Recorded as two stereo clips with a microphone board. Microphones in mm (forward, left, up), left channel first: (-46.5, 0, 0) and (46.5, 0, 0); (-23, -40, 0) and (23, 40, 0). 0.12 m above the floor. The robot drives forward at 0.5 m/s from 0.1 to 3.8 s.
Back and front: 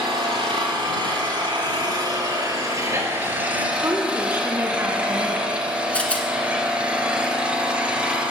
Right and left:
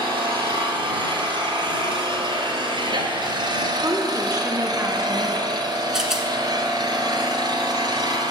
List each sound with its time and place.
0.0 s an engine running: 20° left, 2.5 m; by 8.3 s 75° left, 1.1 m
3.8 s a woman speaking: 40° left, 1.2 m
5.9 s a rattle: 135° left, 1.0 m